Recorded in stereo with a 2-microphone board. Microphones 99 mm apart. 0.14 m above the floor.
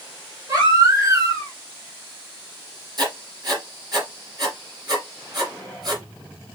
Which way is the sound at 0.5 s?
35° right (ahead or behind).